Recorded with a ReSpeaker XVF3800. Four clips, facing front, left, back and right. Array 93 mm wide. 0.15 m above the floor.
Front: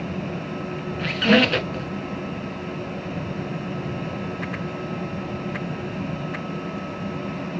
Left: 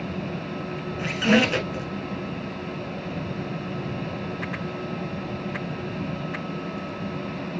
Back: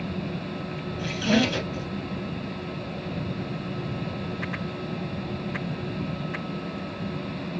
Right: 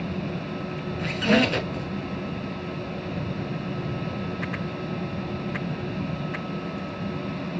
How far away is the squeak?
About 1.0 m.